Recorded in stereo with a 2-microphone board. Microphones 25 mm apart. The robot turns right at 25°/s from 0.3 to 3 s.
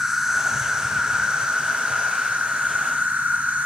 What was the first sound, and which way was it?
An insect, 165° right.